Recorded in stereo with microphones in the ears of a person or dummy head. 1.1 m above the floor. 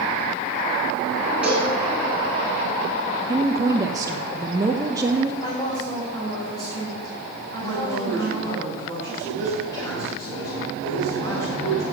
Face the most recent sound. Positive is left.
turn(degrees=20)  # may be behind; listen again after turning